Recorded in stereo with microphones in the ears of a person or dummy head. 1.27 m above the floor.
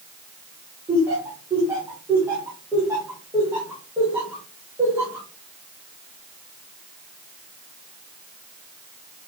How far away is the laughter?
About 1.1 m.